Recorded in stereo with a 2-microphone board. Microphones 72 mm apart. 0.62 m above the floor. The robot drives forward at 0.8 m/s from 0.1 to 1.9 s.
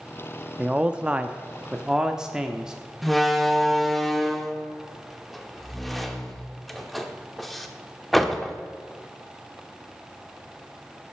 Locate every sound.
0.6 s a man speaking: 15° right (ahead or behind), 0.6 m; by 2.7 s 10° right (ahead or behind), 0.8 m
3.0 s a door slam: centre (ahead or behind), 1.0 m